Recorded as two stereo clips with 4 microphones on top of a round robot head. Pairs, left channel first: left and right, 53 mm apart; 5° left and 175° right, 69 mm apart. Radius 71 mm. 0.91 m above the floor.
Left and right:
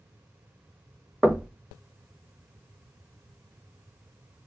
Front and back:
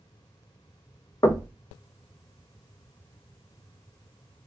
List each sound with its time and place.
1.2 s knocking: 25° right, 0.6 m